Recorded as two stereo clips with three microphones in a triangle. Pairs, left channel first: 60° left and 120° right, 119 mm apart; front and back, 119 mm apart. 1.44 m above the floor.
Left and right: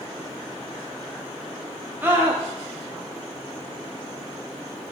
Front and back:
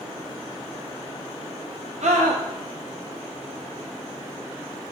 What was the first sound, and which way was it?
A scream, 170° left.